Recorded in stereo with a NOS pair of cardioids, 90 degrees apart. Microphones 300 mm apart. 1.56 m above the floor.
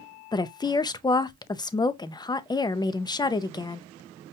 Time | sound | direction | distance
0.3 | a woman speaking | 15° left | 0.5 m